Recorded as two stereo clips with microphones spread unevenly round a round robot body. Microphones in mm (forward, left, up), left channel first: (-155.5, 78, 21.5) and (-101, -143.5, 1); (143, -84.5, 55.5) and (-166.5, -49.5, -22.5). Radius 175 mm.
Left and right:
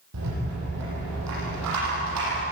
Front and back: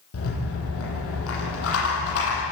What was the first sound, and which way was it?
A rattle, 50° right.